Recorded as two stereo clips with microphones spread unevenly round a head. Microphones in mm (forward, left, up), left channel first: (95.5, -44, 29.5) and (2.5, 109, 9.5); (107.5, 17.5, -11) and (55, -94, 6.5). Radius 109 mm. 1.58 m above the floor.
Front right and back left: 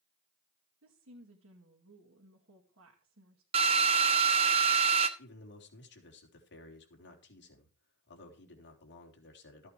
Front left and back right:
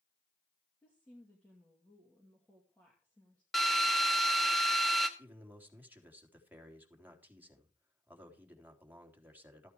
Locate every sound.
0.8 s a woman speaking: 150° left, 2 m
3.5 s a drill: 170° left, 1.1 m
5.2 s a man speaking: 40° right, 4 m